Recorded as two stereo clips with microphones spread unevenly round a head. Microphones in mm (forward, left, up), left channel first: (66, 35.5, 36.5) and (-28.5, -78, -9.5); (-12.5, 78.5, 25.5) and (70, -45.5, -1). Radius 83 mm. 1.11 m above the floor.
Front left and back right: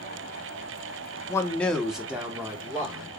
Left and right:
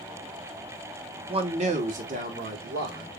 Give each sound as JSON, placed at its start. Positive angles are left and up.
{"t": 1.3, "sound": "a man speaking", "azimuth_deg": -30, "distance_m": 0.8}